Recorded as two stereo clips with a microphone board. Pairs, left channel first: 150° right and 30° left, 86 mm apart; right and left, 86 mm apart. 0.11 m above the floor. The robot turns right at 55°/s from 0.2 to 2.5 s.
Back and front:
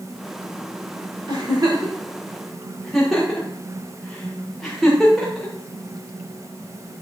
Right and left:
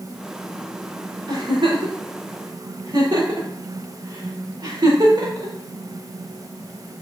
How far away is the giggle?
About 7 m.